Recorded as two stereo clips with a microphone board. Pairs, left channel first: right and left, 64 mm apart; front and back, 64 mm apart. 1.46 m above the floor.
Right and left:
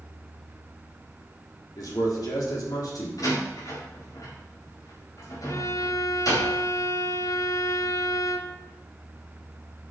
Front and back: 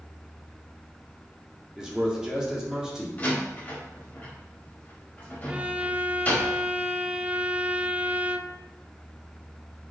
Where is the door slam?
65° right, 5 m.